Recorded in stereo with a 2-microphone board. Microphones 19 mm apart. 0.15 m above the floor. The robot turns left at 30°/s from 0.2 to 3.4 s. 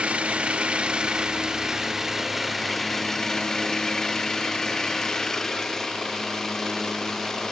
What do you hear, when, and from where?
0.0 s an engine running: 110° right; by 7.5 s 155° left